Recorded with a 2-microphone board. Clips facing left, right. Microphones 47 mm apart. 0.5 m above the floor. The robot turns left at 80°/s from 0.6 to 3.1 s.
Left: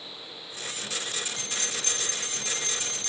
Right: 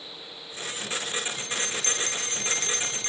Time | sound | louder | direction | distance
1.4 | a bell | right 3 dB | 15° right | 2.5 m